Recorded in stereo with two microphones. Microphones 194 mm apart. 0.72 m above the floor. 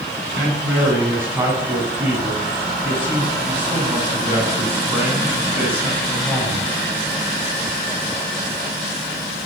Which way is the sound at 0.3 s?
10° right (ahead or behind).